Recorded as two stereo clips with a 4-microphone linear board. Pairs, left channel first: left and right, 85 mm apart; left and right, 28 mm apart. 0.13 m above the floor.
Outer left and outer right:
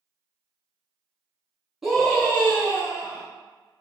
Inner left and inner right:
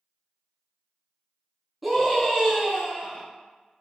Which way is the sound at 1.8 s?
5° right (ahead or behind).